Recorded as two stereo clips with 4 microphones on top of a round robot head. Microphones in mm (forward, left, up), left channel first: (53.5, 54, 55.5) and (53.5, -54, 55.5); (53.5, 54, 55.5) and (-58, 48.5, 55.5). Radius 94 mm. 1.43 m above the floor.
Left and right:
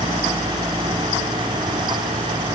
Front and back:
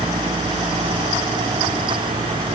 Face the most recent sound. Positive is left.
No sound to turn to.